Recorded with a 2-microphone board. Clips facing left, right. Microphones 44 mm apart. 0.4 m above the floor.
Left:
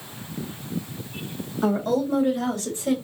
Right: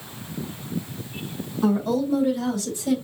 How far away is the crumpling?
I don't hear crumpling.